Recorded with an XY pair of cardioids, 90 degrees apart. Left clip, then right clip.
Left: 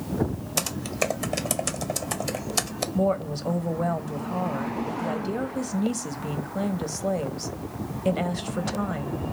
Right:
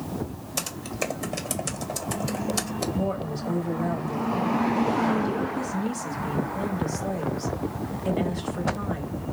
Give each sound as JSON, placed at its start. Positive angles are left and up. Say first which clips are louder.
{"t": 0.6, "sound": "typing on a keyboard", "louder": "left 3 dB", "azimuth_deg": 30, "distance_m": 0.5}
{"t": 3.0, "sound": "a woman speaking", "louder": "left 4 dB", "azimuth_deg": 50, "distance_m": 0.6}